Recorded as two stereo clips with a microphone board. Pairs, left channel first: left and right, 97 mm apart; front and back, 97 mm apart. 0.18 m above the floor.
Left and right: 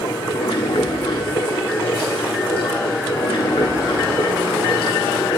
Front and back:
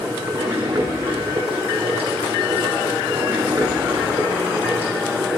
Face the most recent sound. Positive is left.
turn(degrees=105)